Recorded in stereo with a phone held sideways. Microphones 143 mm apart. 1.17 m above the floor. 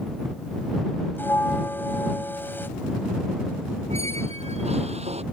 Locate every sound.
1.2 s a bell: 15° left (ahead or behind)
3.9 s a squeak: 45° right (ahead or behind)